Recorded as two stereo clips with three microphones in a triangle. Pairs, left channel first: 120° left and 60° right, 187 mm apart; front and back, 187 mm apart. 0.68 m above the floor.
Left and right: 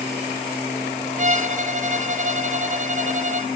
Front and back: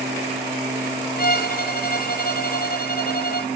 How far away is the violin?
About 0.9 m.